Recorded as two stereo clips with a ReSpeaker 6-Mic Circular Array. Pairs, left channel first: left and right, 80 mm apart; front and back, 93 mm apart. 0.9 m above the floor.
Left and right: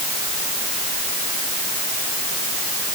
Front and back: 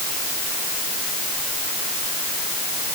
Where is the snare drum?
No snare drum in this recording.